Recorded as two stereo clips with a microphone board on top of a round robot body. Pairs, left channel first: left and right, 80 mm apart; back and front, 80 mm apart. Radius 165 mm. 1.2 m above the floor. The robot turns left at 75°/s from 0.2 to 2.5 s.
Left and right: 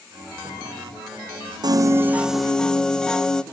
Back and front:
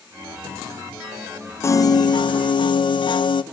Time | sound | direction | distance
1.6 | a piano | 125° right | 0.7 m